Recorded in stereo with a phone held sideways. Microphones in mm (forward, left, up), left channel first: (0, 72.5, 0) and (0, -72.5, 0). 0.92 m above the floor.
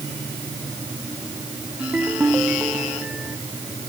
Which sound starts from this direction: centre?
A ringtone, at 1.8 s.